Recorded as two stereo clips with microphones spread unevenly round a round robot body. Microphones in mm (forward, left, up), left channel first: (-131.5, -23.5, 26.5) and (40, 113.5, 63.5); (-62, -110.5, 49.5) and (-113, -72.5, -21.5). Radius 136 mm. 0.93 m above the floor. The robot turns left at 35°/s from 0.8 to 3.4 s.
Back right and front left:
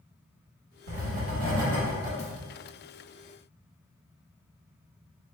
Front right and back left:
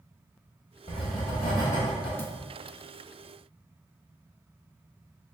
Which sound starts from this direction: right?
A thud, at 2.2 s.